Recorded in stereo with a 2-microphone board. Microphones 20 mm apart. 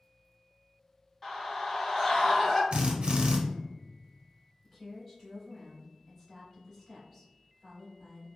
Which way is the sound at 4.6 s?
15° left (ahead or behind).